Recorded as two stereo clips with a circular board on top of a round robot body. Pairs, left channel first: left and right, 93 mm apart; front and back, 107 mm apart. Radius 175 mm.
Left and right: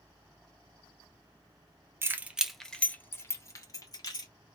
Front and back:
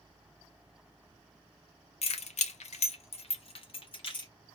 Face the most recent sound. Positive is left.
turn(degrees=45)